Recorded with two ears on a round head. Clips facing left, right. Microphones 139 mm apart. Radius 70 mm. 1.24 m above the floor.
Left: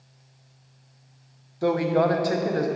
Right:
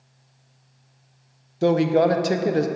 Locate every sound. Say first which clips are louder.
1.6 s a man speaking: right 4 dB; 30° right (ahead or behind), 0.5 m